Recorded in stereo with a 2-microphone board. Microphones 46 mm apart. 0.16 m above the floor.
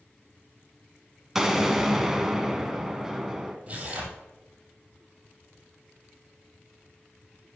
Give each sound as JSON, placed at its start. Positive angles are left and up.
{"t": 1.4, "sound": "an explosion", "side_deg": -10, "distance_m": 0.8}
{"t": 3.7, "sound": "tearing paper", "side_deg": -30, "distance_m": 2.5}